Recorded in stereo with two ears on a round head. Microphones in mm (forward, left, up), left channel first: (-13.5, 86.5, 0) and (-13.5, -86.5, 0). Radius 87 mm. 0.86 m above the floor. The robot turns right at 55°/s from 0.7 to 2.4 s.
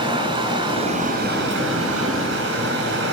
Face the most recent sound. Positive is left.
turn(degrees=-60)